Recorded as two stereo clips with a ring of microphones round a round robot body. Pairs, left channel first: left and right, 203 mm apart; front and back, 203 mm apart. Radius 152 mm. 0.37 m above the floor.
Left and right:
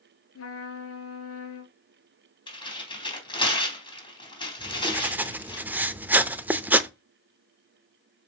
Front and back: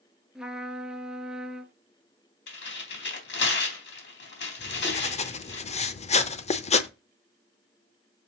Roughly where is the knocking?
I don't hear knocking.